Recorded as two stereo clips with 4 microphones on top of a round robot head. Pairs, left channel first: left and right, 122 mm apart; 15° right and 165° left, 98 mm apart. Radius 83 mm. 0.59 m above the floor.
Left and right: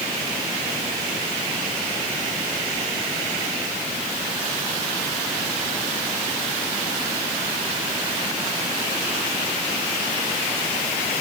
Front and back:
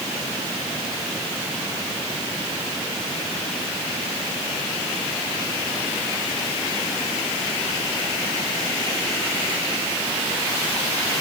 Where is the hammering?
No hammering in this recording.